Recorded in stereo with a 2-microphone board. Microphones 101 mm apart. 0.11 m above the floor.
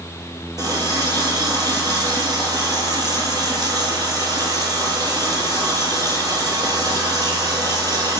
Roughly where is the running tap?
Right.